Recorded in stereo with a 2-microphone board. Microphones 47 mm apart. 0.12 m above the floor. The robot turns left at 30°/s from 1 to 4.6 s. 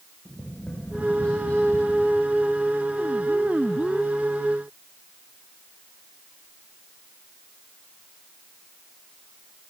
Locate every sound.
0.2 s tapping: 15° left (ahead or behind), 8 m; by 1.9 s 45° left (ahead or behind), 8 m